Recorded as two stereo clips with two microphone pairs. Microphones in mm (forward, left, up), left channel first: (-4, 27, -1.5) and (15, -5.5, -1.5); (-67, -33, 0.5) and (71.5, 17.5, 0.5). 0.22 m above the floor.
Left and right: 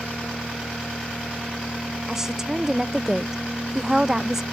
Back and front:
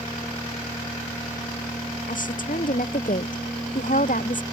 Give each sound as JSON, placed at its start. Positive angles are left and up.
{"t": 2.1, "sound": "a woman speaking", "azimuth_deg": -135}